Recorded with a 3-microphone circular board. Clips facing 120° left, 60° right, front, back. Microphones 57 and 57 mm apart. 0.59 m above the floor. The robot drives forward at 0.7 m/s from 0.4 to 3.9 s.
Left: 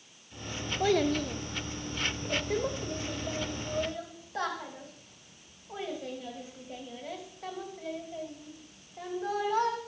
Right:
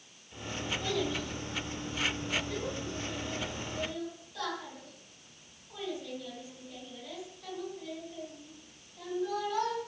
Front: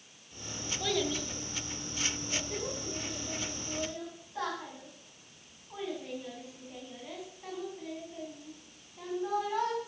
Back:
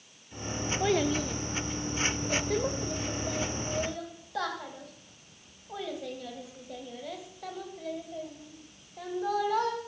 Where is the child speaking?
125° left, 0.8 m; by 9.8 s 170° left, 2.5 m.